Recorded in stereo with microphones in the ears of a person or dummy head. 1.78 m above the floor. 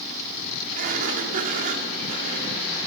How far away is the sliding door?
About 2 m.